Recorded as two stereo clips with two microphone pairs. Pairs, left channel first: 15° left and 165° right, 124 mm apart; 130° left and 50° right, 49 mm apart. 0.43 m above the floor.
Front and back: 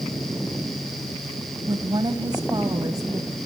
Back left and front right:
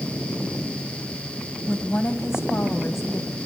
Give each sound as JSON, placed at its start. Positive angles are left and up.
{"t": 1.7, "sound": "a woman speaking", "azimuth_deg": 150, "distance_m": 2.0}